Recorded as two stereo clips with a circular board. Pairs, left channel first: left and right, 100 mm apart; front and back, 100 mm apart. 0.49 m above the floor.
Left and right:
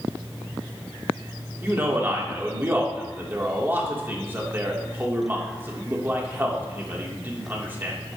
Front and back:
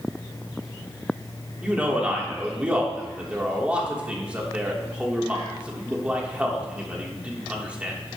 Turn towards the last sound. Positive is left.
turn(degrees=-120)